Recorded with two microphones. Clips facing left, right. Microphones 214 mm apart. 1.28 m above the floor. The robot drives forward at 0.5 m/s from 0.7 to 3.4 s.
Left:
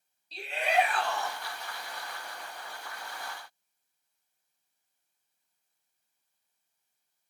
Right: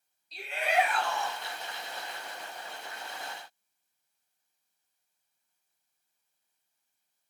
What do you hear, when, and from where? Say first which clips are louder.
0.3 s a shout: left 1 dB; 35° left (ahead or behind), 1.8 m; by 1.4 s 40° left (ahead or behind), 1.5 m